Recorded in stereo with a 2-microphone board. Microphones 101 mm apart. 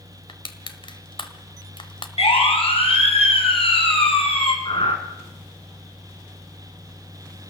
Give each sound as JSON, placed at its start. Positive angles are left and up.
{"t": 0.3, "sound": "crushing", "side_deg": 55, "distance_m": 1.5}
{"t": 2.2, "sound": "a siren", "side_deg": 75, "distance_m": 5.0}
{"t": 4.7, "sound": "breathing", "side_deg": 65, "distance_m": 2.0}